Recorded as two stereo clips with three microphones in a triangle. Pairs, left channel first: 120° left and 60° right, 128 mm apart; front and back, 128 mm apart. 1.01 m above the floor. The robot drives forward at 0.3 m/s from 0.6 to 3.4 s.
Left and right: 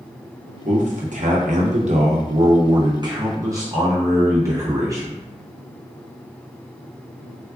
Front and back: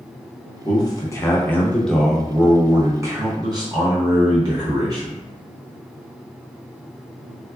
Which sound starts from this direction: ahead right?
A man speaking, at 0.7 s.